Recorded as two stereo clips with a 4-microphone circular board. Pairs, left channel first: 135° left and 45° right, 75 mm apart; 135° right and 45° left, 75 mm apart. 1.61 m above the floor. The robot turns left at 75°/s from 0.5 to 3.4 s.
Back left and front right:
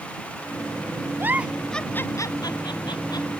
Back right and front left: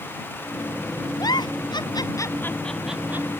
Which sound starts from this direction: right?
A giggle, at 1.2 s.